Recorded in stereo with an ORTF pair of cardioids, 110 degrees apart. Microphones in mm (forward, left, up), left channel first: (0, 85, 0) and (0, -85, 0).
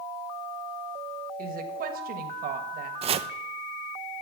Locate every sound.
1.4 s a woman speaking: 60° right, 1.5 m
3.0 s chopping: 35° right, 0.5 m